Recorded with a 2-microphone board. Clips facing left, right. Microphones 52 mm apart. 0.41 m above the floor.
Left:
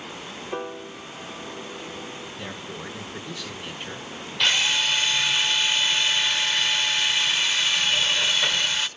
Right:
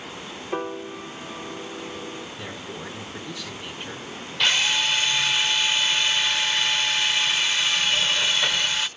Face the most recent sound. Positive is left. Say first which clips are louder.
# even
turn(degrees=-5)  # may be behind; listen again after turning